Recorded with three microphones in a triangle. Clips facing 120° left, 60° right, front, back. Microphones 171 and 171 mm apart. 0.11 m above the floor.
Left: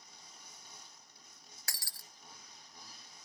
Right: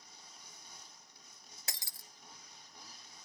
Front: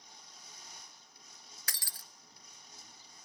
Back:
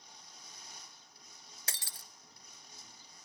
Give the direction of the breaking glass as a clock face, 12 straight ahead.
4 o'clock.